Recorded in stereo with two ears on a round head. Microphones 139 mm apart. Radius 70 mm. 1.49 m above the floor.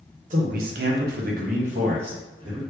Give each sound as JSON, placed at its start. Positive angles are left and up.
{"t": 0.3, "sound": "a man speaking", "side_deg": -55, "distance_m": 0.7}